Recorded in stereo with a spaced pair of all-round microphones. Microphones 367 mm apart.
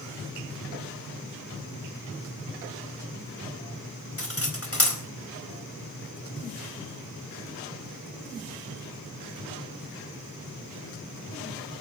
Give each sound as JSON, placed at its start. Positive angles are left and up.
{"t": 4.2, "sound": "cutlery clinking", "side_deg": 40, "distance_m": 4.0}